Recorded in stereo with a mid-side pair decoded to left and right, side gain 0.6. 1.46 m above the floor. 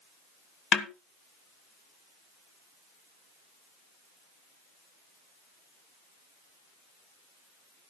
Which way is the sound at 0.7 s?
50° left.